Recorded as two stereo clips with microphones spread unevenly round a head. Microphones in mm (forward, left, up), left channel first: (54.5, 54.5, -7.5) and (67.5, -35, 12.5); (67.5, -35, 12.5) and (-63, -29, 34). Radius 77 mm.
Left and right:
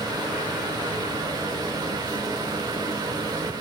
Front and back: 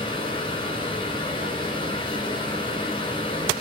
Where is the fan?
55° right, 2.5 m.